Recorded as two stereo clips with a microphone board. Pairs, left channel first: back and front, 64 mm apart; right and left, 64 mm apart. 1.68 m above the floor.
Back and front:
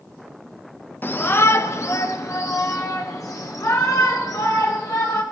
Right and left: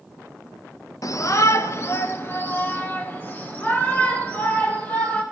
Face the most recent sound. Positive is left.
turn(degrees=-155)